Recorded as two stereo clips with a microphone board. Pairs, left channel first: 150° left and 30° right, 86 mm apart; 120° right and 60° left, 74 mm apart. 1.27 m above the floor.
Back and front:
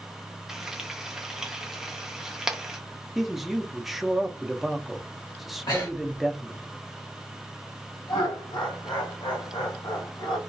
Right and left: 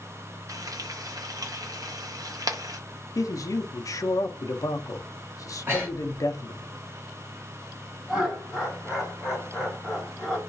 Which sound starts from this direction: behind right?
A man speaking, at 3.1 s.